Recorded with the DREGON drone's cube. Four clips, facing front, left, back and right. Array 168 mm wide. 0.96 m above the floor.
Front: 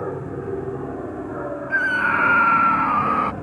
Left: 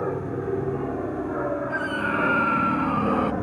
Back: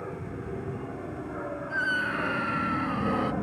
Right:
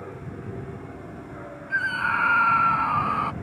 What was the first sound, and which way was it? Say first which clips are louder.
An aircraft: left 11 dB, front 9 dB; 50° left.